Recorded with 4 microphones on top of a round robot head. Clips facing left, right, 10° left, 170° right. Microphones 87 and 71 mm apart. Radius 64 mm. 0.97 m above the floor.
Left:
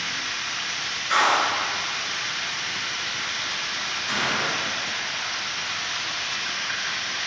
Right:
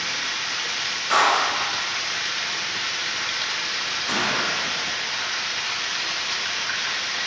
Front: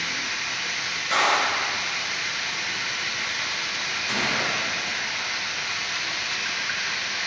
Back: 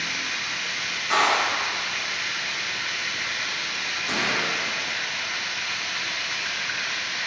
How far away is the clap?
About 3 m.